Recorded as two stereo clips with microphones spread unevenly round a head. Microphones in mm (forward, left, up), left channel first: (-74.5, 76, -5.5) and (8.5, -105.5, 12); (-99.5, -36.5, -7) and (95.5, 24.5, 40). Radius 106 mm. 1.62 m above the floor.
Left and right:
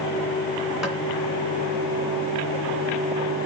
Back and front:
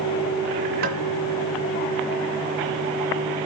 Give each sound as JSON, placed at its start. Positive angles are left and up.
{"t": 0.8, "sound": "tapping", "azimuth_deg": 20, "distance_m": 2.5}